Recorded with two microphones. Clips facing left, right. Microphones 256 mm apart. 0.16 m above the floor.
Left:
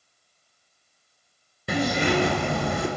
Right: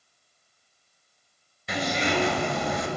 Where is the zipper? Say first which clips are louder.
Left 4 dB; 60° left (ahead or behind), 1.0 m.